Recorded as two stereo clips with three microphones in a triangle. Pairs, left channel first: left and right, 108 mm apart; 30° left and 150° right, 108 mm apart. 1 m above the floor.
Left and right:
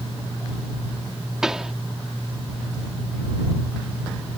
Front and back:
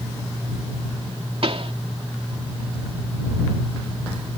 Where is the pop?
175° right.